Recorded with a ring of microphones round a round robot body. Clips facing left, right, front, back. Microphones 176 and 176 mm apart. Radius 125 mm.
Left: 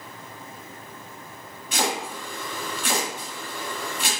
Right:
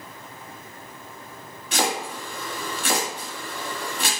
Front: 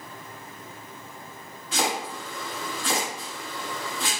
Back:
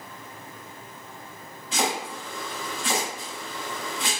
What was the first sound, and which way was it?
Chopping, 90° right.